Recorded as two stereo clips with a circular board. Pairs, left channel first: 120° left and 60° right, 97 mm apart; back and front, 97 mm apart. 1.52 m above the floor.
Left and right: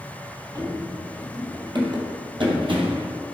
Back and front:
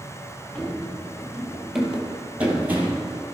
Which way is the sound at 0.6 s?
100° right.